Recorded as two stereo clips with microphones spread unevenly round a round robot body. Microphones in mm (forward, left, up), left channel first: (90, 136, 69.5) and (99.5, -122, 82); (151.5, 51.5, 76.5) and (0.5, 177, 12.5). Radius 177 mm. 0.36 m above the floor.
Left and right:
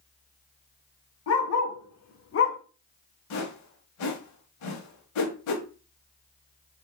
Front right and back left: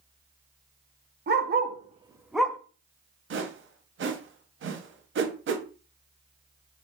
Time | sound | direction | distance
1.3 | a dog barking | 120° left | 0.7 m
3.3 | a whoosh | 115° left | 0.6 m